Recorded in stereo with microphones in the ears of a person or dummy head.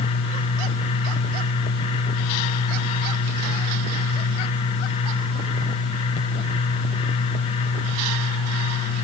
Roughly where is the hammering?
I don't hear hammering.